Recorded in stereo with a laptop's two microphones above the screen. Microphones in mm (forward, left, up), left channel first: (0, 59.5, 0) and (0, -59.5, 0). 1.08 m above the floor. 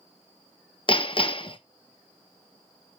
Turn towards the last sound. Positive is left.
turn(degrees=45)  # may be behind; listen again after turning